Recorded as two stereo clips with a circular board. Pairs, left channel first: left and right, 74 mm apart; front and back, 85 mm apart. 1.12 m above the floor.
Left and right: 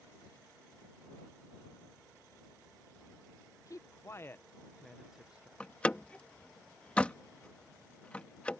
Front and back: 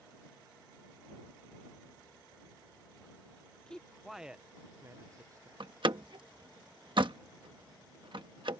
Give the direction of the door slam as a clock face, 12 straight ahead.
7 o'clock.